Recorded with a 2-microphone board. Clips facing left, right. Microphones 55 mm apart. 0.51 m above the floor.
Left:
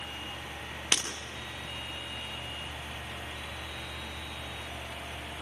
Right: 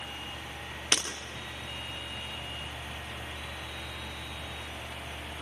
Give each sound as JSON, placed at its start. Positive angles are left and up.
{"t": 0.9, "sound": "breaking glass", "side_deg": 5, "distance_m": 5.0}